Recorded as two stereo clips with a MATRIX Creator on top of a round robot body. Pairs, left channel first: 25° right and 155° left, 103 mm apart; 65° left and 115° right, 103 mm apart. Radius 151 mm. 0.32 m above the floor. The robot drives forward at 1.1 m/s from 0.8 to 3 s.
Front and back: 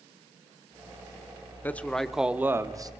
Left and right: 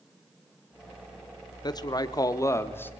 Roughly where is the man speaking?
Ahead left.